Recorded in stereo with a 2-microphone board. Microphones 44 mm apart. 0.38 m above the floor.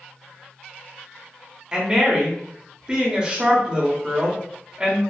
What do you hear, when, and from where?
1.7 s a woman speaking: 20° right (ahead or behind), 0.9 m